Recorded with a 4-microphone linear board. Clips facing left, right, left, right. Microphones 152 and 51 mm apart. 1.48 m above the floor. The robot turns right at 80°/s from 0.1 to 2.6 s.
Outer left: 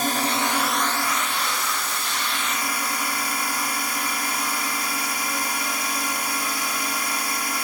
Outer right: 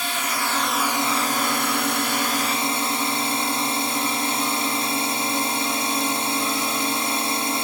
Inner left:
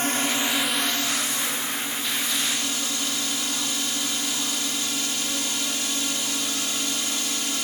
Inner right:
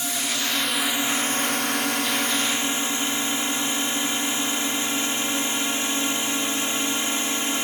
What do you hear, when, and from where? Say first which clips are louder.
0.0 s a drone: outer left 4 dB, inner left 3 dB; 130° left; by 7.7 s 30° right